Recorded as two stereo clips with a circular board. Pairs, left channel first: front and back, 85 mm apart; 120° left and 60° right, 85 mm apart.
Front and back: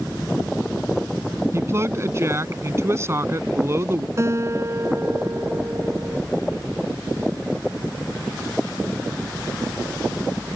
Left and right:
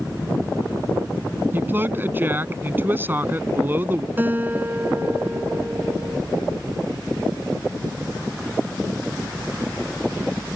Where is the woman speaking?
125° right.